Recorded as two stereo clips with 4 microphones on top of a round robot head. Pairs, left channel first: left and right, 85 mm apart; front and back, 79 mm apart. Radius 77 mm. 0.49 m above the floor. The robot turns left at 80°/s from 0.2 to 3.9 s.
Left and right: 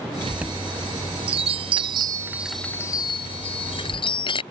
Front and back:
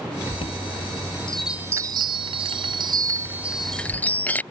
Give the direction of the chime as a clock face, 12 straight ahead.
12 o'clock.